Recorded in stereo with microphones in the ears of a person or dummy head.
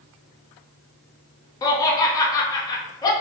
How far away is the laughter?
About 0.6 m.